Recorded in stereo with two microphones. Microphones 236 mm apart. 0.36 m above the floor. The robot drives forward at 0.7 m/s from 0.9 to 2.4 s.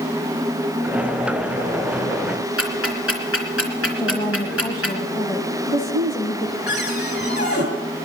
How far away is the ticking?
About 3 m.